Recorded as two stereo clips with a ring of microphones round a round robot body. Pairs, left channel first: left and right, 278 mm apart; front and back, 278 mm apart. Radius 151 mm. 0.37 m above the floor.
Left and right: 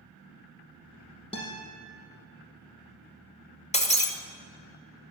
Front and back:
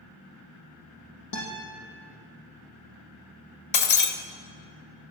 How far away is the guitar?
About 6 m.